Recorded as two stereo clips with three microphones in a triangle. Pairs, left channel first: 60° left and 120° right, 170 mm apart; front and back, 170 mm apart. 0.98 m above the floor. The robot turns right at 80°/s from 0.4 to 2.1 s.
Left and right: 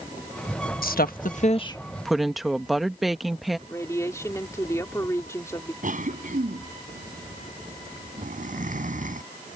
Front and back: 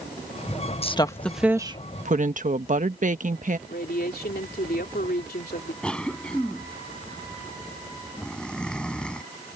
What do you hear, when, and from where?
0.8 s a woman speaking: 50° left; by 3.6 s 150° left
3.7 s a woman speaking: 10° right
5.8 s a cough: 85° right